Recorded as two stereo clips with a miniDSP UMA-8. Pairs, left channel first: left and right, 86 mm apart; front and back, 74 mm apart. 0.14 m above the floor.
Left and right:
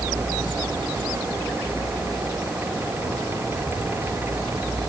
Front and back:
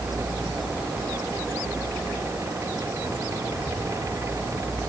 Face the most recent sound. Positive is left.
No sound to turn to.